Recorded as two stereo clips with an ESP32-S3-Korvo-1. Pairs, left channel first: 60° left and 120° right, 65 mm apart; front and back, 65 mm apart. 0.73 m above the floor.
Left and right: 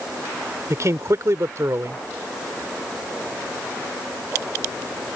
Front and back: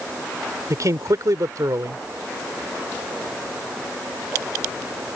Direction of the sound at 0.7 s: 155° right.